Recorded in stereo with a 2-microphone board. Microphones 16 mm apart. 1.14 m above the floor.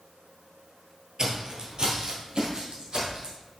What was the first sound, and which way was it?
Footsteps, 40° right (ahead or behind).